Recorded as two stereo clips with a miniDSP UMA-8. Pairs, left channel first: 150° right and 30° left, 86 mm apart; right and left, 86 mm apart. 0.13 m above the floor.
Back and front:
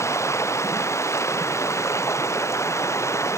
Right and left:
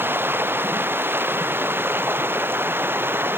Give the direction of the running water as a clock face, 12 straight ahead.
7 o'clock.